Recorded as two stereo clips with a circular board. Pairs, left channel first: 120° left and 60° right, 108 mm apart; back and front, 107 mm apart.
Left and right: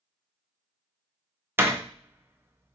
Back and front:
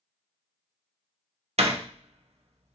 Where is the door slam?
10° left, 0.5 m.